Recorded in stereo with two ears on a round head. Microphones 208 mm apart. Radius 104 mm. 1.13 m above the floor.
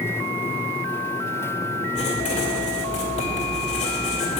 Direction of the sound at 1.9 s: 30° left (ahead or behind).